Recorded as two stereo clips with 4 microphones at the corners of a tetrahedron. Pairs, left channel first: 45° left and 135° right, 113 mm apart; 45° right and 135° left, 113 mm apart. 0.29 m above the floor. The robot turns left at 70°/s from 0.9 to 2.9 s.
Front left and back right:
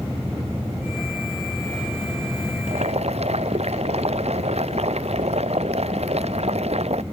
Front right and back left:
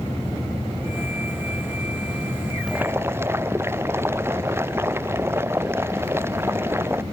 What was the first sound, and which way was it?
Boiling, 140° right.